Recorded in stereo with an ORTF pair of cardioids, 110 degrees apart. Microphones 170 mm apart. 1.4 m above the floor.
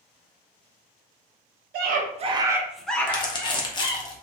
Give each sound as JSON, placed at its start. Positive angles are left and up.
{"t": 1.7, "sound": "a scream", "azimuth_deg": -70, "distance_m": 0.6}
{"t": 3.1, "sound": "crumpling", "azimuth_deg": 25, "distance_m": 0.7}